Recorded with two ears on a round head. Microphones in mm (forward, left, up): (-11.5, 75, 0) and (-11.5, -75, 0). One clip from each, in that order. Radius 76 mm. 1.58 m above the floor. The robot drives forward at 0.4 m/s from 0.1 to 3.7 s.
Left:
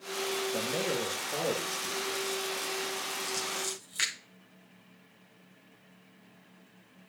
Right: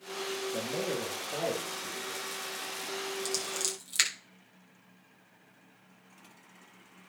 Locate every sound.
0.5 s a man speaking: 65° left (ahead or behind), 3.5 m; by 2.4 s 55° left (ahead or behind), 3.5 m
3.2 s scissors: 60° right (ahead or behind), 4 m; by 4.1 s 65° right (ahead or behind), 4 m